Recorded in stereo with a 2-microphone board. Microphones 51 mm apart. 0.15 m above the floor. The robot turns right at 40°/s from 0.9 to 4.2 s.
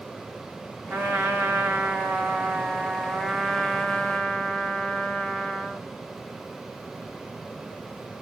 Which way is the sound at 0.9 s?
100° right.